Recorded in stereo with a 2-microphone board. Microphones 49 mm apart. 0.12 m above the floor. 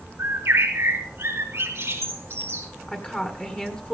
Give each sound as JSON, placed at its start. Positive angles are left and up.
{"t": 0.2, "sound": "a bird", "side_deg": -55, "distance_m": 5.0}
{"t": 2.9, "sound": "a woman speaking", "side_deg": 20, "distance_m": 1.7}